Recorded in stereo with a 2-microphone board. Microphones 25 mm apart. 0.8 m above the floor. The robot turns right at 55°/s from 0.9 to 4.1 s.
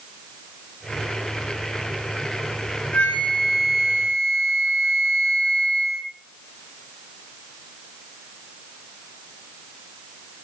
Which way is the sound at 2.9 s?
95° left.